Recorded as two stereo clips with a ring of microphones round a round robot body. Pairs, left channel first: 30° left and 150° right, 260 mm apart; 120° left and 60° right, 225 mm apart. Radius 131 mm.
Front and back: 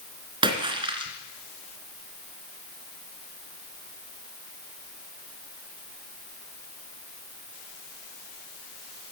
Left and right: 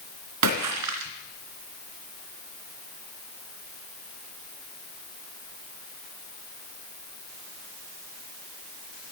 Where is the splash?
75° right, 3 m.